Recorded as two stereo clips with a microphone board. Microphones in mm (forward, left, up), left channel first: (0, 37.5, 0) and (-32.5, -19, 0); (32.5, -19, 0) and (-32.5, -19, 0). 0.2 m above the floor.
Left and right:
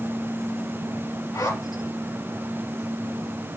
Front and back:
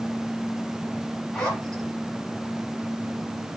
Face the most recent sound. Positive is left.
turn(degrees=80)